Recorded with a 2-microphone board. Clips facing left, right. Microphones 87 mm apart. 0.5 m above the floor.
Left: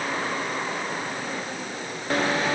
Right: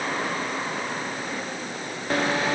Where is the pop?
No pop in this recording.